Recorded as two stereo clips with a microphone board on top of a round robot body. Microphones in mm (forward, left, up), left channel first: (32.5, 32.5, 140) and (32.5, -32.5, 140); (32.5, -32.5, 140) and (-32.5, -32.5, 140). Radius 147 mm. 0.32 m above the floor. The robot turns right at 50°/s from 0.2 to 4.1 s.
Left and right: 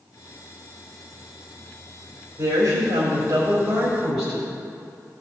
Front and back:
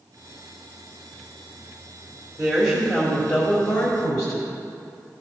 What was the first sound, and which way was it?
A woman speaking, 95° right.